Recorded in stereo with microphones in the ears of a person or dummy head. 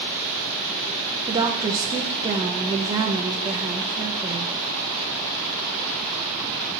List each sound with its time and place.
1.3 s a woman speaking: 15° right (ahead or behind), 0.7 m